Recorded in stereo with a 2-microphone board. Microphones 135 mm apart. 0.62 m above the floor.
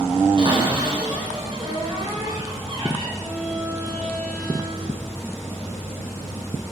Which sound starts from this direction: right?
A cupboard door, at 0.4 s.